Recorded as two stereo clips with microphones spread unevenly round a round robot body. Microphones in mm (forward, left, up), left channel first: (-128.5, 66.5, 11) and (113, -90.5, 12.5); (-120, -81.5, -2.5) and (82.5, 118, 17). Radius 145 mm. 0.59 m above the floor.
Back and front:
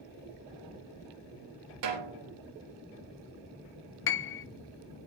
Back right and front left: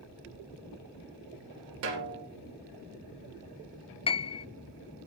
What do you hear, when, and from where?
1.8 s a snare drum: 5° right, 3 m
4.1 s a piano: 165° left, 0.6 m